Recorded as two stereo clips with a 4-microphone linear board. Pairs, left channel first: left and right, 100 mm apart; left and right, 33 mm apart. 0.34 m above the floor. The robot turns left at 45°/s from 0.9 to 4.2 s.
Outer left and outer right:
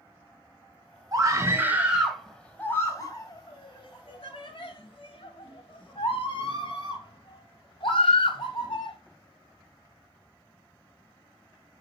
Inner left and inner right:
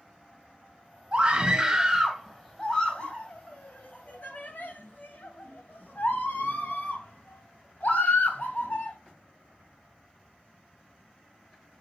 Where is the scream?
40° right (ahead or behind), 1.6 m; by 9.0 s 60° left (ahead or behind), 1.6 m.